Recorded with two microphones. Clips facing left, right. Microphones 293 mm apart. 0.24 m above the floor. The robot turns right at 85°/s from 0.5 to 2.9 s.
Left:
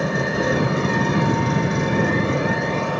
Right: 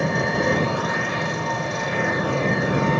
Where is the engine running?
Straight ahead, 2.5 m; by 3.0 s 155° right, 2.5 m.